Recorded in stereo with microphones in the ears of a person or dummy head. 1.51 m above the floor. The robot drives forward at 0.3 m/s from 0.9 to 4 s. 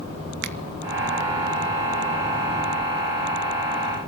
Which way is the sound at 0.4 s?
60° right (ahead or behind).